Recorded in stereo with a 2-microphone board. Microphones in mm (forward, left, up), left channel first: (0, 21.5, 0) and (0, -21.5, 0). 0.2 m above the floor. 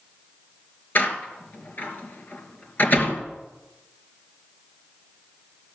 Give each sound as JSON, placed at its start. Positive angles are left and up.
{"t": 0.9, "sound": "a door slam", "side_deg": 45, "distance_m": 2.5}